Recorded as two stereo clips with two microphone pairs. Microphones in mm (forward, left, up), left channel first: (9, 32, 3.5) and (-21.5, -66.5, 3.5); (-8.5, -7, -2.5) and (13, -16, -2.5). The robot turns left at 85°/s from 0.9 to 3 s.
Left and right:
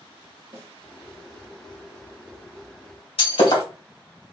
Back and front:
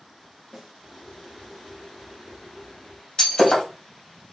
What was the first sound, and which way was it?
A snare drum, 90° right.